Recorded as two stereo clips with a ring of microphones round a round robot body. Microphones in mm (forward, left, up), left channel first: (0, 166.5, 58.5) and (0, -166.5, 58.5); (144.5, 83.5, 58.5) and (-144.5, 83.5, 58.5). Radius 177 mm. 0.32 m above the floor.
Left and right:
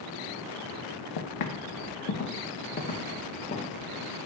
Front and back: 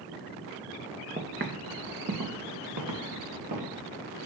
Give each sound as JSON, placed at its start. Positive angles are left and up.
{"t": 1.2, "sound": "footsteps", "azimuth_deg": 120, "distance_m": 1.4}